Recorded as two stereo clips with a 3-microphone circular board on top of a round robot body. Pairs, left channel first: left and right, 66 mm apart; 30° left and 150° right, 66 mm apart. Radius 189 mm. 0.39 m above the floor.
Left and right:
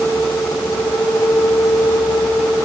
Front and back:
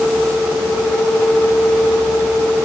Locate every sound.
Only background noise.